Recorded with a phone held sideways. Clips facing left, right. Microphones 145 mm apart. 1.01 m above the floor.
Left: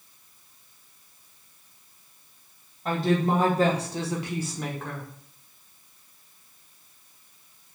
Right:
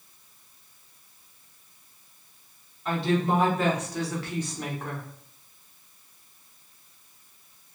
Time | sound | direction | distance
2.9 | a woman speaking | 45° left (ahead or behind) | 1.2 m